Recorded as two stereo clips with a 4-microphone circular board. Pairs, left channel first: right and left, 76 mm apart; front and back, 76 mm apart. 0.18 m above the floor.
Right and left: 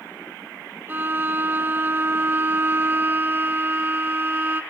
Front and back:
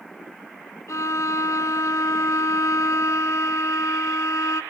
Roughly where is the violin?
Ahead left.